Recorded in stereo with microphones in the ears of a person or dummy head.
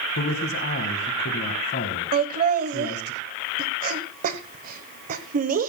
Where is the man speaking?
55° left (ahead or behind), 1.9 m.